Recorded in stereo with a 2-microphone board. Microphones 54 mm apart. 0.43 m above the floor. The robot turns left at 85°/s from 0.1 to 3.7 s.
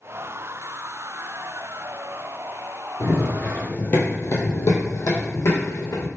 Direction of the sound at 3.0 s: 40° left (ahead or behind).